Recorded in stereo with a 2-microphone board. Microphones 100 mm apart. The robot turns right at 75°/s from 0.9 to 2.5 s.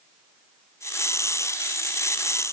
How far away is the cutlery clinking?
I don't hear cutlery clinking.